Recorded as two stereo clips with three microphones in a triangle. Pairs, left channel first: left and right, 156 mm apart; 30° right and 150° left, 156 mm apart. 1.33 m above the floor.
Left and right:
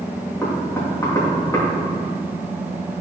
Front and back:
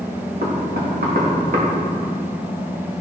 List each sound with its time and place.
0.4 s knocking: 160° left, 1.7 m